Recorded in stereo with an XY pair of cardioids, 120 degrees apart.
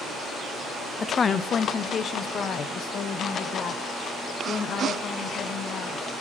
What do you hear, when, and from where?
1.0 s a woman speaking: 30° left, 0.6 m; by 6.1 s 55° left, 3.5 m